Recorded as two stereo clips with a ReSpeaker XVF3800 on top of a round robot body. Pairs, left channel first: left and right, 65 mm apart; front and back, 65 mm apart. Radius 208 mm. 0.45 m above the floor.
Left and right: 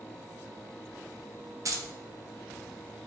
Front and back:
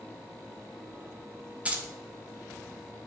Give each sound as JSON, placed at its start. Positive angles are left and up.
{"t": 1.6, "sound": "keys jangling", "azimuth_deg": -110, "distance_m": 0.5}